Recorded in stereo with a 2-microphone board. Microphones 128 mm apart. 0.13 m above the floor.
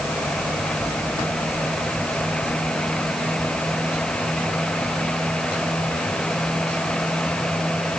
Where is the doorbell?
No doorbell in this recording.